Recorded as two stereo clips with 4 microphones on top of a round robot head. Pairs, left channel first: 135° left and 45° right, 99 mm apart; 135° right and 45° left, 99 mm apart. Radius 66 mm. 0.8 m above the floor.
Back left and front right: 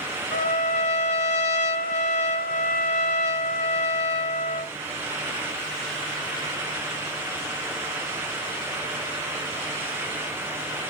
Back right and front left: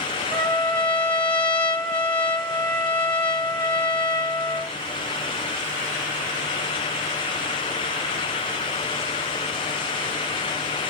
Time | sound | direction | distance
0.3 | a trumpet | 150° left | 1.2 m